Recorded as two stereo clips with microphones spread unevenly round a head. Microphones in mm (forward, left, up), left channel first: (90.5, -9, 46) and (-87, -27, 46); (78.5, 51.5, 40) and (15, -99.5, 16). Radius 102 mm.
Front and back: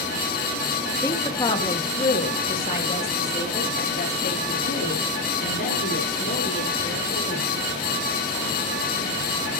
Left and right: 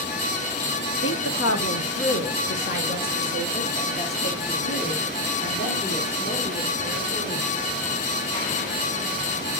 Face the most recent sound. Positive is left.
turn(degrees=30)